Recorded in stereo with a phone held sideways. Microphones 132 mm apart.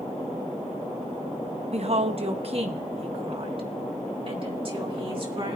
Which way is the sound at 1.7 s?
55° right (ahead or behind).